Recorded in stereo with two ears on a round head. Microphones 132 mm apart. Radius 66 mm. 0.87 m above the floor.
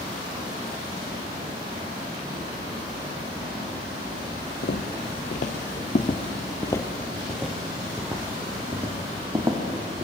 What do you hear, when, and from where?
4.6 s footsteps: 65° left (ahead or behind), 1.8 m; by 10.1 s 25° right (ahead or behind), 3.5 m